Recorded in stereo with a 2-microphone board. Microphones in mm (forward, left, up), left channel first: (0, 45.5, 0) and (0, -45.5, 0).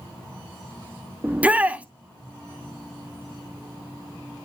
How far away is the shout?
About 1.1 m.